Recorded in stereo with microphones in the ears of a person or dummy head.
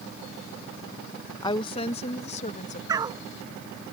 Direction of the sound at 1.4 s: 30° left (ahead or behind).